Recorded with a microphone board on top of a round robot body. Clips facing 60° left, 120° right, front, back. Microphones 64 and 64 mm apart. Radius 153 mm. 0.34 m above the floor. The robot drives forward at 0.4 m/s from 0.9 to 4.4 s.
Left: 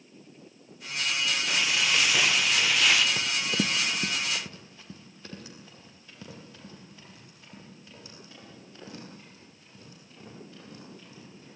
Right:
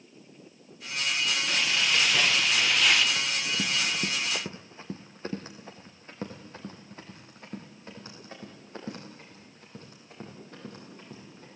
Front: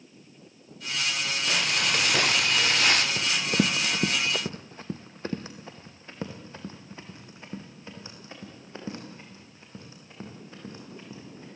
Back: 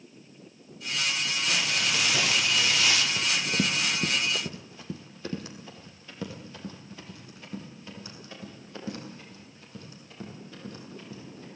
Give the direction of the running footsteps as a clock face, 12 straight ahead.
11 o'clock.